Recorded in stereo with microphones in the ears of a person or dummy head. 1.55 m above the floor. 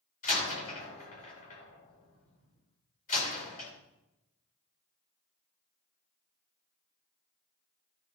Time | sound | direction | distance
0.2 | a door slam | 45° left (ahead or behind) | 3.5 m